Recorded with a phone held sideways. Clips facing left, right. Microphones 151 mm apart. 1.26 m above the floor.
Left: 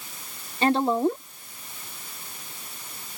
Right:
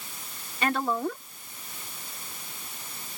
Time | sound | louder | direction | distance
0.6 | a woman speaking | left 6 dB | 30° left (ahead or behind) | ?